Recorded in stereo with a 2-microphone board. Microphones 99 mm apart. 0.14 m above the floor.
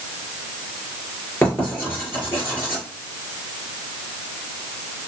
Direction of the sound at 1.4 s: 20° left (ahead or behind).